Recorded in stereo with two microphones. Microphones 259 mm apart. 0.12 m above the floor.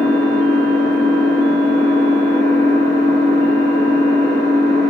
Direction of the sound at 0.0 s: 30° left (ahead or behind).